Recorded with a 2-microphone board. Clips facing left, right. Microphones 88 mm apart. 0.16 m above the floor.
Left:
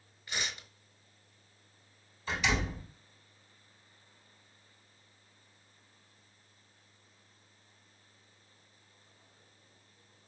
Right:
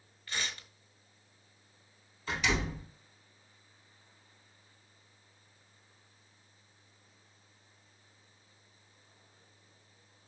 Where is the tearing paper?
15° left (ahead or behind), 0.6 m.